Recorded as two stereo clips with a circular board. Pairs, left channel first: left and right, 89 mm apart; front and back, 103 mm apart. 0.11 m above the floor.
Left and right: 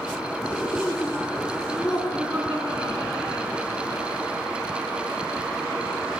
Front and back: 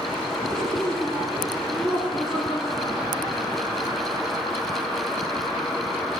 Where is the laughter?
25° right, 1.4 m.